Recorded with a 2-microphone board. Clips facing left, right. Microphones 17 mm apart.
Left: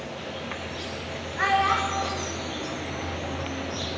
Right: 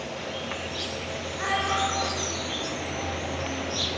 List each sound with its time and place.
0.0 s an insect: 25° right (ahead or behind), 1.3 m
1.4 s a child speaking: 40° left (ahead or behind), 9.5 m